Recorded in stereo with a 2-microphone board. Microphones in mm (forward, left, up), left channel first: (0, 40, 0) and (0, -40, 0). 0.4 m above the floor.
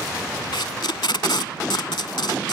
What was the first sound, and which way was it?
Tape being pulled, 80° left.